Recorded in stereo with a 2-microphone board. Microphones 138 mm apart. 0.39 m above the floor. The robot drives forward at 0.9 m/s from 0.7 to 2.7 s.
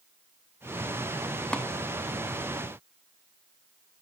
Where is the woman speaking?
I don't hear a woman speaking.